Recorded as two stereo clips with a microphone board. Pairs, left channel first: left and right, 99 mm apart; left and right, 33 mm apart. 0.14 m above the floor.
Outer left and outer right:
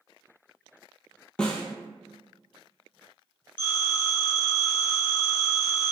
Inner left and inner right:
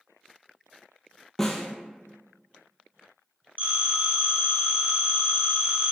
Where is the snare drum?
10° left (ahead or behind), 0.9 m.